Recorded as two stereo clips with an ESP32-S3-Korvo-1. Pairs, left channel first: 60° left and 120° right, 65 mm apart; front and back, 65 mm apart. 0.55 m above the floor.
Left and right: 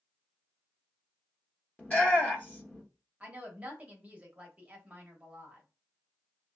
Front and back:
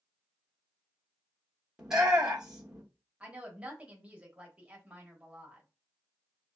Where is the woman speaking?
145° right, 0.9 m.